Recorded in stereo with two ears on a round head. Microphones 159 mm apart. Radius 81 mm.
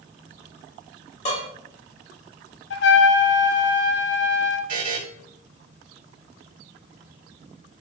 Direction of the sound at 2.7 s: 70° left (ahead or behind).